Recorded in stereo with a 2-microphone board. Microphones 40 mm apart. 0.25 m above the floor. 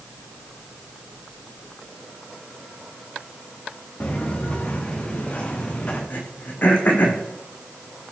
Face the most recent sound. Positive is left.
turn(degrees=50)  # may be behind; listen again after turning